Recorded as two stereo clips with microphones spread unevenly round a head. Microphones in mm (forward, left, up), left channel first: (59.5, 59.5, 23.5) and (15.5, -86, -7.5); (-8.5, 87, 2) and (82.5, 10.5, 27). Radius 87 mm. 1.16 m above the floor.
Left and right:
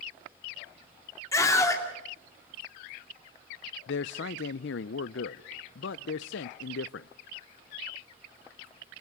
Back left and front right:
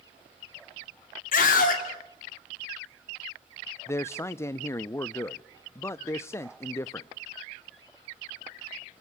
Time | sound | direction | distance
1.3 | a scream | 150° left | 2.5 m
3.9 | a man speaking | 75° left | 0.5 m